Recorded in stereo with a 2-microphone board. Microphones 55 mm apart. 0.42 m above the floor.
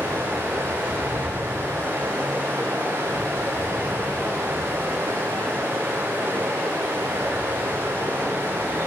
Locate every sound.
0.0 s running water: 50° right (ahead or behind), 9.5 m